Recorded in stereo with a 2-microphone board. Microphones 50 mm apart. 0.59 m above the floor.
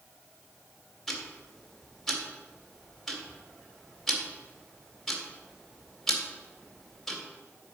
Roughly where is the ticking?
Centre.